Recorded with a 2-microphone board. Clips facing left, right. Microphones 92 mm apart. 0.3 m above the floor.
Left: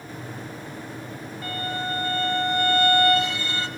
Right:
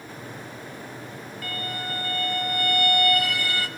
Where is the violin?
30° left (ahead or behind), 1.6 m.